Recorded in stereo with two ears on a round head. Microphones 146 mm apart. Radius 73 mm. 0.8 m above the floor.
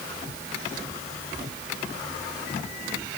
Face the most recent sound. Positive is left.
No sound to turn to.